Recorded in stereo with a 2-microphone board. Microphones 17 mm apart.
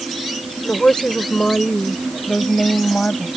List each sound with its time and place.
0.6 s a woman speaking: 80° left; by 3.3 s 75° left (ahead or behind)